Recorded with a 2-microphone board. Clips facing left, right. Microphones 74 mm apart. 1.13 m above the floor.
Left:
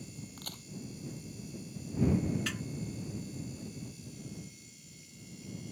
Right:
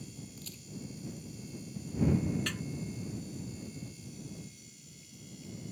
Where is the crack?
65° left (ahead or behind).